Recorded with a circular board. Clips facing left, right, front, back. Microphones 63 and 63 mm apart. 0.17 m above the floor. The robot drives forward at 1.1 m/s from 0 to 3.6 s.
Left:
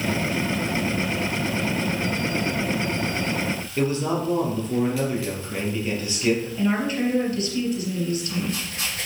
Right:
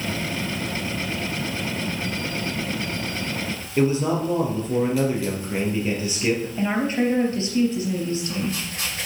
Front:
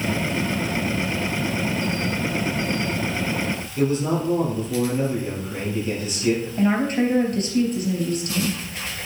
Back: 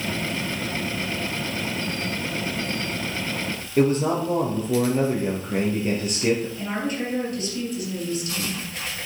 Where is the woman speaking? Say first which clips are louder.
Right 1 dB, front 7 dB; 30° right, 3.5 m.